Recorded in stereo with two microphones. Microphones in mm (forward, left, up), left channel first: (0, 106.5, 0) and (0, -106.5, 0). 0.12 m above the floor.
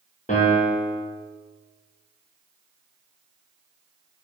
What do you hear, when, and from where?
0.3 s a piano: 35° left (ahead or behind), 1.0 m